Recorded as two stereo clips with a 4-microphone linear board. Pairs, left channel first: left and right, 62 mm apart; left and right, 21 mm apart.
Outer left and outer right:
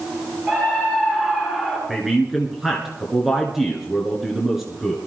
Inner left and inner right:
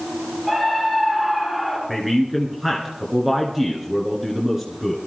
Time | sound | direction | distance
0.5 | a scream | 25° right (ahead or behind) | 2.5 m
1.9 | a man speaking | 5° right (ahead or behind) | 1.9 m